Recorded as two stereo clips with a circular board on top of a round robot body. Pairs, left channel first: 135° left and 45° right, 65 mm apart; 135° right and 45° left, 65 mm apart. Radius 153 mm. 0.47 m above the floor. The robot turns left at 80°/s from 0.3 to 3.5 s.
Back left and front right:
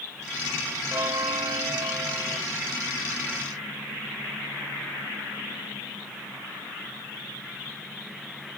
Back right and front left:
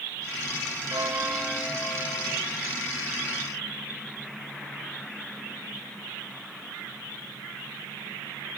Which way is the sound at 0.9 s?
5° left.